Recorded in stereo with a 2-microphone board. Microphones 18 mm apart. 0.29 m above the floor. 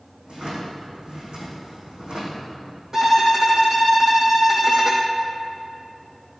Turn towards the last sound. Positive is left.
turn(degrees=-25)  # may be behind; listen again after turning